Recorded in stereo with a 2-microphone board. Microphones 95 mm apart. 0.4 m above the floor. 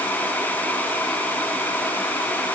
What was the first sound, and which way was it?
Only background noise.